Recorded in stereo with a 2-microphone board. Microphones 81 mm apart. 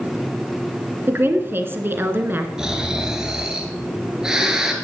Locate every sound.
1.1 s a woman speaking: 25° right (ahead or behind), 2.0 m
2.6 s snoring: 10° right (ahead or behind), 2.5 m